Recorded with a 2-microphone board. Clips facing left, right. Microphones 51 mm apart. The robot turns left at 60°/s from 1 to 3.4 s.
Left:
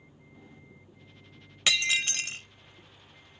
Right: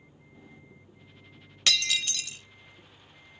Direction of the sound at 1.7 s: 15° left (ahead or behind).